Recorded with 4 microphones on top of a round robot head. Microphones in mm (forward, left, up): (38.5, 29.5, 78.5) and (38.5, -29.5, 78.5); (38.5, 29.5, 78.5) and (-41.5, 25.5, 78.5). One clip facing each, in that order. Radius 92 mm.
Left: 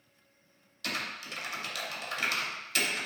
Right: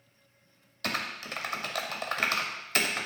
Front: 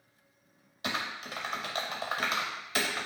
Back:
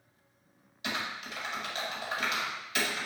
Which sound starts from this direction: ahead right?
Typing on a keyboard, at 0.8 s.